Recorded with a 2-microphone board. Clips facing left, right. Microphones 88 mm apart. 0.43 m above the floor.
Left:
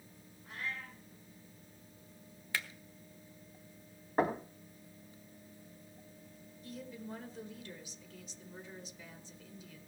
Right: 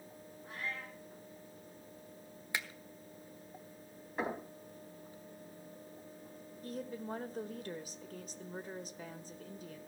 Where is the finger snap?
15° right (ahead or behind), 1.3 m.